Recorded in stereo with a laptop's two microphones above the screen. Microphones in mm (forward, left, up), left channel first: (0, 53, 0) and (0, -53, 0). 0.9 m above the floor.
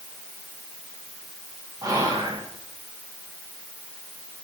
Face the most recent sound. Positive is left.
turn(degrees=-30)  # may be behind; listen again after turning